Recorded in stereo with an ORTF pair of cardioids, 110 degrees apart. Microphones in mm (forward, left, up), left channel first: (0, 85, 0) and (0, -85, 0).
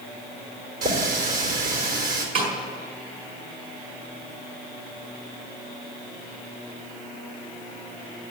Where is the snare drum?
65° right, 5 m.